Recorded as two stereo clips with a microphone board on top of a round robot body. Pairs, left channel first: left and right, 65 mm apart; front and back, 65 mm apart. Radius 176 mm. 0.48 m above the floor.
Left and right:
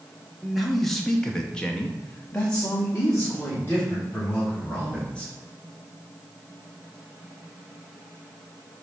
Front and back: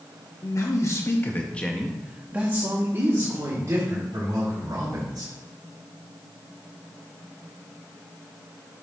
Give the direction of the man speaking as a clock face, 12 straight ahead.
12 o'clock.